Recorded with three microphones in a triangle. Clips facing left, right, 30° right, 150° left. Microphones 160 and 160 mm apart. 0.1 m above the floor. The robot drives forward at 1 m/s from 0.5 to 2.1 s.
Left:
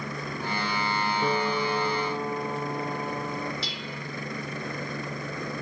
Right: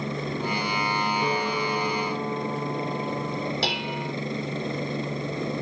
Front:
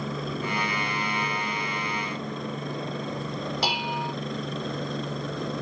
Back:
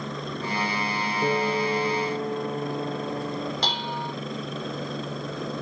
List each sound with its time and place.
0.0 s a helicopter: 115° right; by 5.6 s 120° right
1.2 s a piano: straight behind
3.6 s dishes clattering: 110° right